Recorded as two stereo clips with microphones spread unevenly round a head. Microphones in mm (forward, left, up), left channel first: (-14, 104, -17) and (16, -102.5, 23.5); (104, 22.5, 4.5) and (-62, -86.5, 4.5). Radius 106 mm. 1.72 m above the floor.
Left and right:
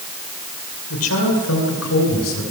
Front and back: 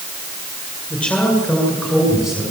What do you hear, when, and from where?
0.9 s a man speaking: 120° left, 8 m; by 2.4 s 125° left, 9 m